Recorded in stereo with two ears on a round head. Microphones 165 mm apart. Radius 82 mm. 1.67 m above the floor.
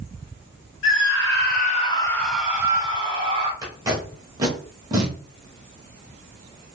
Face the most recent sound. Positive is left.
turn(degrees=-20)  # may be behind; listen again after turning